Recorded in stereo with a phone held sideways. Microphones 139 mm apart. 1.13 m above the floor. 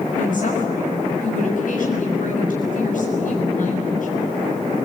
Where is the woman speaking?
75° left (ahead or behind), 6.5 m.